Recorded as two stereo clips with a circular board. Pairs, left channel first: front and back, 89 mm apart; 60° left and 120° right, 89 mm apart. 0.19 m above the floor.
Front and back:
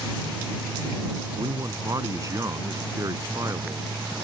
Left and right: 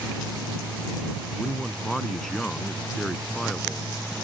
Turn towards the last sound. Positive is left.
turn(degrees=145)